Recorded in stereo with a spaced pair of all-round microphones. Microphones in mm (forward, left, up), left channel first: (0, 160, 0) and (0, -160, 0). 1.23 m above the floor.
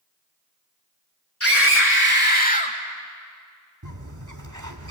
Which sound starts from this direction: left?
A scream, at 1.4 s.